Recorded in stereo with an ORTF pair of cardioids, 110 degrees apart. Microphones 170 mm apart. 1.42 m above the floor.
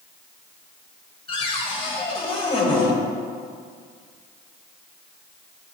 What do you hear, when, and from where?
1.3 s a cupboard door: 30° left, 1.7 m